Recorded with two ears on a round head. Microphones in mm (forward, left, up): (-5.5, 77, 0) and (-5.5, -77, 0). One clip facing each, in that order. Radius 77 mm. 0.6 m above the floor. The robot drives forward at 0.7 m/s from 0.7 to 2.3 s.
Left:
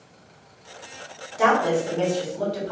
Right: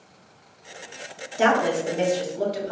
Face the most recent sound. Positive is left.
turn(degrees=-20)  # may be behind; listen again after turning